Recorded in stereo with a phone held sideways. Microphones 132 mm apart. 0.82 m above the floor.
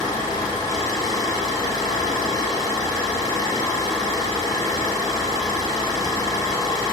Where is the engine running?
30° left (ahead or behind), 2 m.